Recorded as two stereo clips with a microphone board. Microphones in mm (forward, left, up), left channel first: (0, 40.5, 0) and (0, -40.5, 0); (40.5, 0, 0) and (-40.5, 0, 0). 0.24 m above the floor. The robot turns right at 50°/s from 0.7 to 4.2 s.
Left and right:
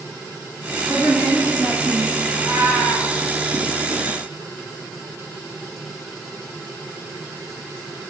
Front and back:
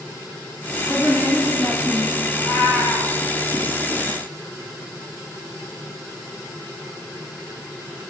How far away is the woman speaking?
About 2 m.